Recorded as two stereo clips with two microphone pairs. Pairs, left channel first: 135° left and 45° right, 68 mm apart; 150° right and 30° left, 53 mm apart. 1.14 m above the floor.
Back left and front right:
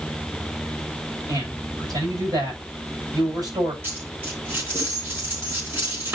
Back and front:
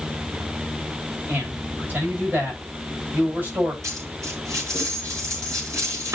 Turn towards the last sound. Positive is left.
turn(degrees=10)